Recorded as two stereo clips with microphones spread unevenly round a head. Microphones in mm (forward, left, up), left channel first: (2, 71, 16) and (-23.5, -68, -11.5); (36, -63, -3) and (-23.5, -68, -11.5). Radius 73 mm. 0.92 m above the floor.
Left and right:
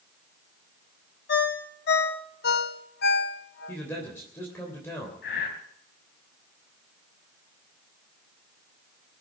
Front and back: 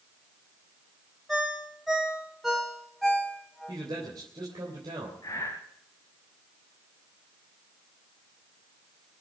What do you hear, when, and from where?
1.3 s a ringtone: 95° left, 1.3 m
3.7 s a man speaking: 155° left, 3 m
5.2 s breathing: 65° left, 3 m